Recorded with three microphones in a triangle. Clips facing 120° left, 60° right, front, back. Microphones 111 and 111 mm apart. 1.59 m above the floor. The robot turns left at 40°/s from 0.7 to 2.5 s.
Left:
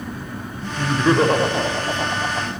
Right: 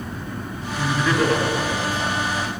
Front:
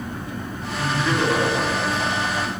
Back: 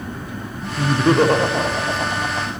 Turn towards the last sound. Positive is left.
turn(degrees=110)